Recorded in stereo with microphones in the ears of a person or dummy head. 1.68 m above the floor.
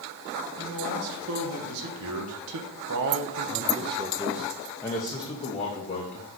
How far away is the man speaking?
About 1.9 m.